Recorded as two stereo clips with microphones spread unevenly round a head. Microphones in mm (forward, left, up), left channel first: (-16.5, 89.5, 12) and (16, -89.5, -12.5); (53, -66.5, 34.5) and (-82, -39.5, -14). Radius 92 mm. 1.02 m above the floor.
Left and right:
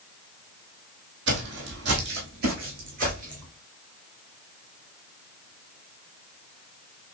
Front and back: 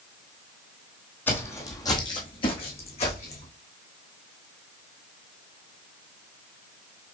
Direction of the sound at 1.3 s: 70° right.